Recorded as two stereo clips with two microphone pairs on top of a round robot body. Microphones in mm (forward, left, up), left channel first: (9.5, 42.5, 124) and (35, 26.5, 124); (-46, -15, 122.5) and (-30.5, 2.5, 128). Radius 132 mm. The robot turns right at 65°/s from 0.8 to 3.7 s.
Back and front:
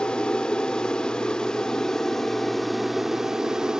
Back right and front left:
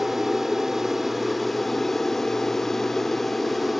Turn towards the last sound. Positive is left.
turn(degrees=-75)